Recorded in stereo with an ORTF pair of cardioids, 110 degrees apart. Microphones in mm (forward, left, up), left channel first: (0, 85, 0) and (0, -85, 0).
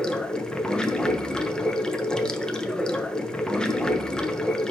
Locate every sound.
0.0 s running water: 5° left, 1.0 m